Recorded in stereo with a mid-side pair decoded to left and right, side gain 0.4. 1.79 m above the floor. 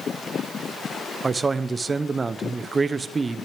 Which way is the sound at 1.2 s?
30° right.